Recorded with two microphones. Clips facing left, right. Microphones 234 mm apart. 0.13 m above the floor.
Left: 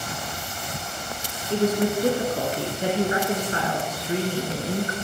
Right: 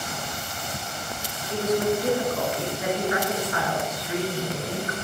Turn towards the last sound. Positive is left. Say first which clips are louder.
# left 2 dB
turn(degrees=30)  # may be behind; listen again after turning